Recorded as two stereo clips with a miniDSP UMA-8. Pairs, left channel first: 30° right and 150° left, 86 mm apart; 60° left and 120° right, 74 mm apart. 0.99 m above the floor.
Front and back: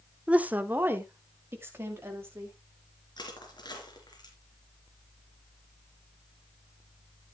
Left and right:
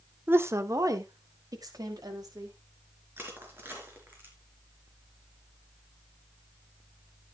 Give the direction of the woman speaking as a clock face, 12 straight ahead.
5 o'clock.